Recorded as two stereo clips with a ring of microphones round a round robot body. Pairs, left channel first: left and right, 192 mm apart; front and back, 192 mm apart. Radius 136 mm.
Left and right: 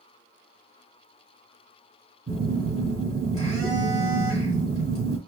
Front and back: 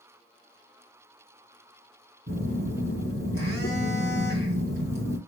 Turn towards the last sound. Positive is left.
turn(degrees=-135)